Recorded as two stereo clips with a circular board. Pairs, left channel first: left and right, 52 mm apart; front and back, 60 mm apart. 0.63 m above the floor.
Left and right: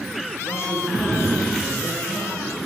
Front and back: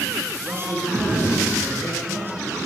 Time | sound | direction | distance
0.4 | a man speaking | 125° left | 7.5 m